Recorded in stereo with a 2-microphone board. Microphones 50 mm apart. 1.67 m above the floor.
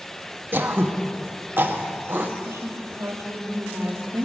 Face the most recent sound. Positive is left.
turn(degrees=-70)  # may be behind; listen again after turning